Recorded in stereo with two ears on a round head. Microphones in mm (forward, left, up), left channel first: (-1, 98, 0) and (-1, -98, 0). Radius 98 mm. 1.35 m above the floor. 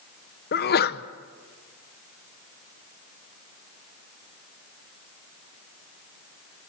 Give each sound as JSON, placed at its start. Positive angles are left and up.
{"t": 0.5, "sound": "a sneeze", "side_deg": 45, "distance_m": 0.9}